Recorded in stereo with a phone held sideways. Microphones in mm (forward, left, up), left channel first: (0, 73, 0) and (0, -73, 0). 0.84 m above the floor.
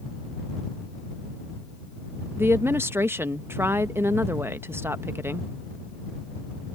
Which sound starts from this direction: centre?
A woman speaking, at 2.4 s.